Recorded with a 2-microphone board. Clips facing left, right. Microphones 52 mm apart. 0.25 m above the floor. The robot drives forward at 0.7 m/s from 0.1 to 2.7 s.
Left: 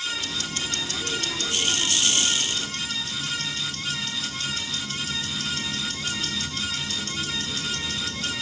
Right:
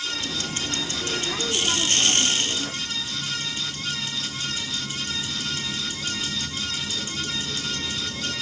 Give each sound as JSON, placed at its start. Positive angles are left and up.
{"t": 0.2, "sound": "ticking", "side_deg": -35, "distance_m": 0.8}